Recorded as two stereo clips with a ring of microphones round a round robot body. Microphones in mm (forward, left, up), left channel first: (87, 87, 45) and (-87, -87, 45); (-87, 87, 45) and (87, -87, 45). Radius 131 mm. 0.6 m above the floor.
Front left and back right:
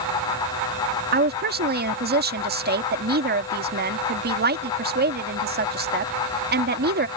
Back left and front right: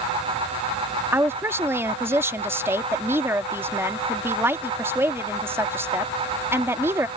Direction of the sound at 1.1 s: 120° right.